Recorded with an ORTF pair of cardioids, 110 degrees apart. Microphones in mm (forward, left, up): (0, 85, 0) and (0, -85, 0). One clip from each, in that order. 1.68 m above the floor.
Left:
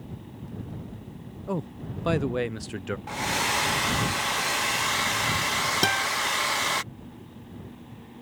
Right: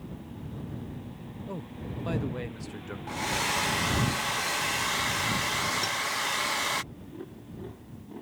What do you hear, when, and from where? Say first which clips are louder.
1.5 s a man speaking: left 8 dB; 45° left
3.1 s a hair dryer: left 2 dB; 15° left
5.8 s a guitar: left 6 dB; 70° left